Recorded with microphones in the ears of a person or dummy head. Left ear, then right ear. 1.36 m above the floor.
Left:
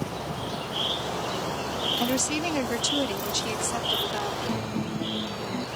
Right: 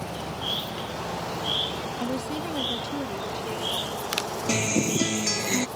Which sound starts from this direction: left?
A woman speaking, at 2.0 s.